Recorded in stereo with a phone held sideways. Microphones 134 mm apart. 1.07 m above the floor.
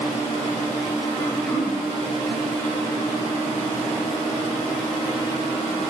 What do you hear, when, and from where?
1.2 s throat clearing: 10° left (ahead or behind), 1.1 m